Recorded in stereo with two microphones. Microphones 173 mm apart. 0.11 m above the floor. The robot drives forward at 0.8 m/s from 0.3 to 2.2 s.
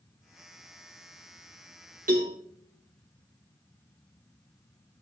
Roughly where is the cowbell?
Right.